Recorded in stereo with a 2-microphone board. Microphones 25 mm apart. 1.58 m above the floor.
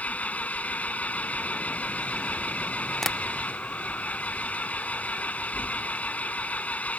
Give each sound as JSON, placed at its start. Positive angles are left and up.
{"t": 0.0, "sound": "an engine running", "side_deg": 75}
{"t": 3.0, "sound": "tapping", "side_deg": 15}